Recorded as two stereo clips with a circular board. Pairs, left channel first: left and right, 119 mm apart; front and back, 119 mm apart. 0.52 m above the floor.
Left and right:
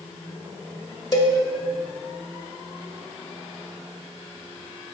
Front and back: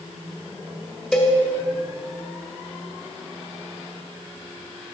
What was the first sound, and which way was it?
A cowbell, 80° left.